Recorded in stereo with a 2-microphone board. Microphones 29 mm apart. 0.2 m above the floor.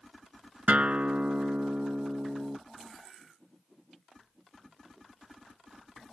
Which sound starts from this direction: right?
A guitar, at 0.7 s.